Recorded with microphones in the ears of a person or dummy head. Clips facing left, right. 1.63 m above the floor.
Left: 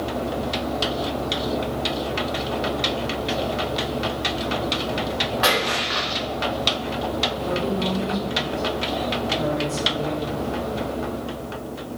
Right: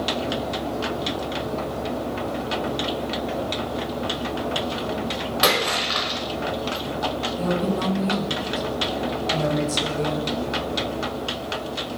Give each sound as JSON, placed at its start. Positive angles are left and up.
{"t": 5.4, "sound": "a splash", "side_deg": -45, "distance_m": 0.7}
{"t": 7.4, "sound": "a woman speaking", "side_deg": -55, "distance_m": 0.8}